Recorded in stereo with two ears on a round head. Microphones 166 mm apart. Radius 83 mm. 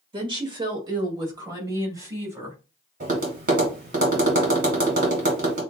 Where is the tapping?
50° right (ahead or behind), 2.5 m.